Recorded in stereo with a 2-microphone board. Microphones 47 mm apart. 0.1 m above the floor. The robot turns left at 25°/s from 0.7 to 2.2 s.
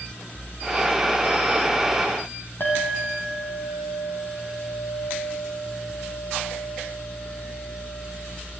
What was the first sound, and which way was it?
A clink, 50° left (ahead or behind).